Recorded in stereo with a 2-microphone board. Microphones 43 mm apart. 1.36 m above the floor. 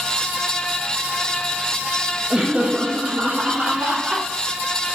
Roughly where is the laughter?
Right.